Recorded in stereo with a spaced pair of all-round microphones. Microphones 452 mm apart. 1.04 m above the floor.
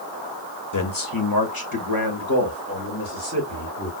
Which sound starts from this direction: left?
A man speaking, at 0.7 s.